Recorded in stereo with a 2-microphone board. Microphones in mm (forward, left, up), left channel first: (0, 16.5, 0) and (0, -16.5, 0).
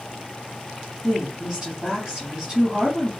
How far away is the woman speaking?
About 1.1 m.